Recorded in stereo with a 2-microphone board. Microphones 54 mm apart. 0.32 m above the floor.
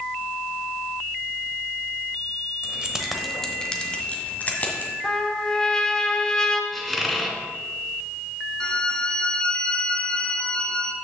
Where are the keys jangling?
20° right (ahead or behind), 0.8 m; by 4.9 s 35° left (ahead or behind), 1.7 m.